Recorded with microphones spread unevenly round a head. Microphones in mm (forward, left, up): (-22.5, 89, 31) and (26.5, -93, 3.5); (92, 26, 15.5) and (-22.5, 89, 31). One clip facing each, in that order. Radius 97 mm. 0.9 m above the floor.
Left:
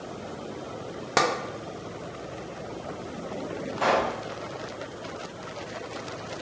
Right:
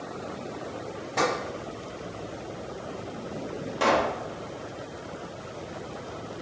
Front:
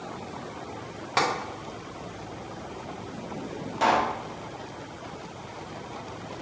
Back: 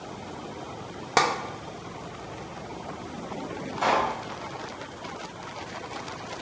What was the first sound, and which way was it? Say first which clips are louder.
Tapping: left 1 dB, back 3 dB; 105° left.